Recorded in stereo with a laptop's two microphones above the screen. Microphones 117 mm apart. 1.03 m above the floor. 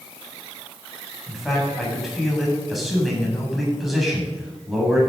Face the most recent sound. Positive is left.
turn(degrees=0)  # may be behind; listen again after turning